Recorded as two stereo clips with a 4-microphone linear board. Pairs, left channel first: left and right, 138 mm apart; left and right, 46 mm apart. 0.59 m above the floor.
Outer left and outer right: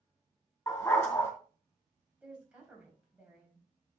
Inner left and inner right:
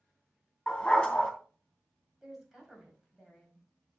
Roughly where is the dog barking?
Centre.